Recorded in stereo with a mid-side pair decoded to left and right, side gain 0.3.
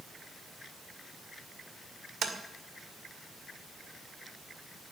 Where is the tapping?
70° right, 2 m.